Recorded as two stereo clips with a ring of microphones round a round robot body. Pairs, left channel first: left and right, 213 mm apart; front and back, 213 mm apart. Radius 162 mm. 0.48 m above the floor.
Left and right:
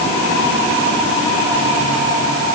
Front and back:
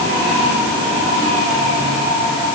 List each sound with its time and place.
Only background noise.